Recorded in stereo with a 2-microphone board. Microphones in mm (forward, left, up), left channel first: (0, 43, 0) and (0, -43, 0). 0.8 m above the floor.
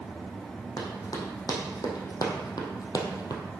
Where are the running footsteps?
55° left (ahead or behind), 2.5 m; by 3.4 s 50° left (ahead or behind), 1.4 m.